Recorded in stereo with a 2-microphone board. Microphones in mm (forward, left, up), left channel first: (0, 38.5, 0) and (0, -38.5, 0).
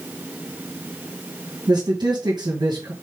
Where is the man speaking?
70° right (ahead or behind), 2.5 m.